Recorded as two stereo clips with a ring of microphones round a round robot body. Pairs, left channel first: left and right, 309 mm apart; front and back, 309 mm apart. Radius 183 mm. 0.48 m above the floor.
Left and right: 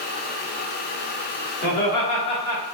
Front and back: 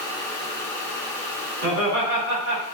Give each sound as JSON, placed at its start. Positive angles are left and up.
{"t": 1.6, "sound": "laughter", "azimuth_deg": 145, "distance_m": 2.0}